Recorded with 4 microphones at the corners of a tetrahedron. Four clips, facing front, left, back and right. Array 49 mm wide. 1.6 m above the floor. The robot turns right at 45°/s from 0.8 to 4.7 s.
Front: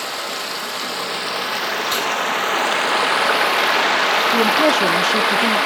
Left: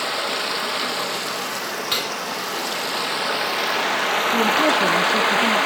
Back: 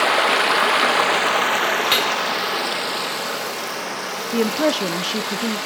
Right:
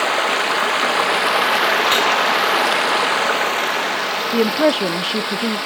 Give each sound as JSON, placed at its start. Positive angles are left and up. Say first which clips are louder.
{"t": 0.0, "sound": "running water", "louder": "right 6 dB, back 9 dB", "azimuth_deg": -145, "distance_m": 1.3}
{"t": 1.9, "sound": "cutlery clinking", "louder": "right 9 dB, back 2 dB", "azimuth_deg": -155, "distance_m": 2.5}
{"t": 4.3, "sound": "a woman speaking", "louder": "right 3 dB, even", "azimuth_deg": -90, "distance_m": 0.5}